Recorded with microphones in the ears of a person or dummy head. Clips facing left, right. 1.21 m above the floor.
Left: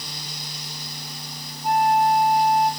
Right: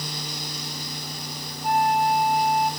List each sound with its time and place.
1.6 s a flute: centre (ahead or behind), 5.5 m